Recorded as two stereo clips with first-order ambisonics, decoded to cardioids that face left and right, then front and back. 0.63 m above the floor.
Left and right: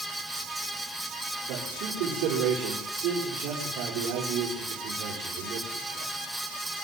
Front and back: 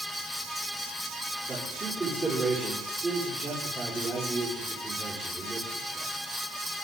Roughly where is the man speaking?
Right.